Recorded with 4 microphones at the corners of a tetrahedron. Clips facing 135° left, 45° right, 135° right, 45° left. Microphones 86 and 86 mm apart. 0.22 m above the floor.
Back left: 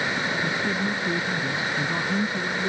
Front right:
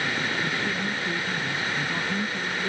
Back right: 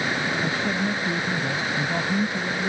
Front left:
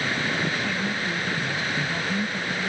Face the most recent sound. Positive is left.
turn(degrees=-170)